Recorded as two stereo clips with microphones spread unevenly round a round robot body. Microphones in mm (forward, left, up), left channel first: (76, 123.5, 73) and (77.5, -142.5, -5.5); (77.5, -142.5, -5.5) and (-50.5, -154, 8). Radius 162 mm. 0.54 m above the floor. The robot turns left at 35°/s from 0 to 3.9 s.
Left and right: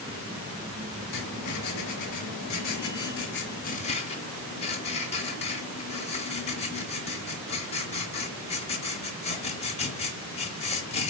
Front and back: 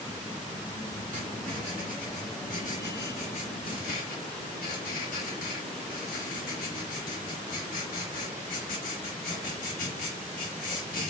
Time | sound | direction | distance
1.1 | writing | 120° left | 0.8 m